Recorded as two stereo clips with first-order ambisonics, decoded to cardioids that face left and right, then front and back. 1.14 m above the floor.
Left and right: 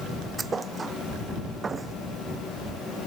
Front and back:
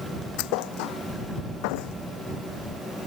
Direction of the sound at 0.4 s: 15° right.